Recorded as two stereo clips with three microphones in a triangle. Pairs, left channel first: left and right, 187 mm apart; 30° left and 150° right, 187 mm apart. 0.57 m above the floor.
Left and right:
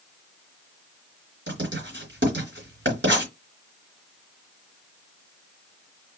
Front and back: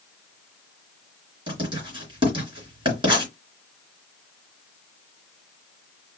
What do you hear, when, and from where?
1.5 s writing: 85° right, 3 m